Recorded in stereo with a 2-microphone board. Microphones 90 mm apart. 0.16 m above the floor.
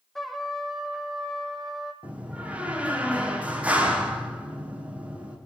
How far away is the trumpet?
About 4 m.